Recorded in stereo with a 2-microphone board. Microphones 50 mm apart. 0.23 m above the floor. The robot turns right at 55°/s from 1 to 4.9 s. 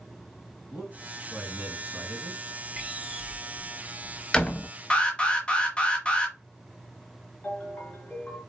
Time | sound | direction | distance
0.7 | a man speaking | 165° right | 2.5 m
2.8 | a door slam | 15° right (ahead or behind) | 0.8 m
4.9 | an alarm | 25° left (ahead or behind) | 1.4 m
7.4 | a ringtone | 30° left (ahead or behind) | 1.9 m